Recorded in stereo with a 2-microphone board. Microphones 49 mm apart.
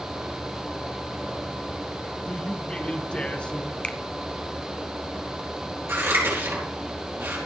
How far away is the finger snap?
About 0.8 m.